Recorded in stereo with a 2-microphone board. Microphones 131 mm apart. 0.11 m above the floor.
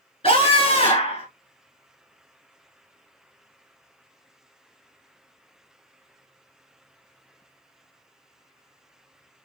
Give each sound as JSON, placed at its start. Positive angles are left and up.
{"t": 0.2, "sound": "a scream", "side_deg": 45, "distance_m": 2.5}